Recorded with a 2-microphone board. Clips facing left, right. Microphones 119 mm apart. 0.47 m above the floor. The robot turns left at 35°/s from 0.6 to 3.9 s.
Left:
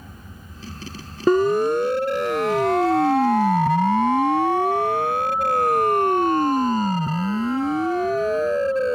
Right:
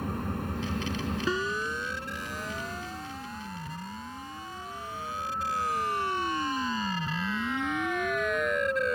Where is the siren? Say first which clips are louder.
Left 18 dB; 45° left (ahead or behind); by 9.0 s 30° left (ahead or behind).